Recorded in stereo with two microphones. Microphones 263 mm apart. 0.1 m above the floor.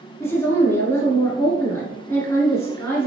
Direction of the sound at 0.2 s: 10° left (ahead or behind).